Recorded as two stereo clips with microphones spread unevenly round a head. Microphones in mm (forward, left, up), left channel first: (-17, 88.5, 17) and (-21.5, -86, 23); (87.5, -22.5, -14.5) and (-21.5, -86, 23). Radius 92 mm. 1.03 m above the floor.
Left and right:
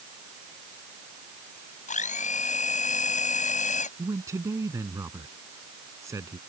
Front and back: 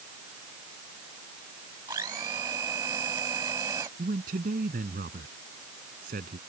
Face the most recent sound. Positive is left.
turn(degrees=-165)